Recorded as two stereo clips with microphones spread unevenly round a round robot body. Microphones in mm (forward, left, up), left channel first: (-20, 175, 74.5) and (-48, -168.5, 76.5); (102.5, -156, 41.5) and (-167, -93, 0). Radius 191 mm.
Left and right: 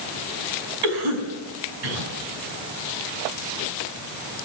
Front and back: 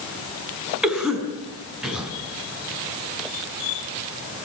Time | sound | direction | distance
0.8 | a cough | 105° right | 5.5 m